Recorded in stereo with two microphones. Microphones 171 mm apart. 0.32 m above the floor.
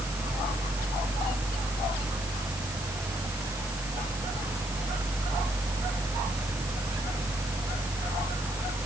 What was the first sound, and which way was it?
Only background noise.